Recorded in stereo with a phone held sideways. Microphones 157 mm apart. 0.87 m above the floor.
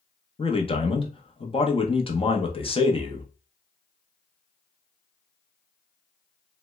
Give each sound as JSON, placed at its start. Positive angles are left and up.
{"t": 0.4, "sound": "a man speaking", "side_deg": 35, "distance_m": 0.7}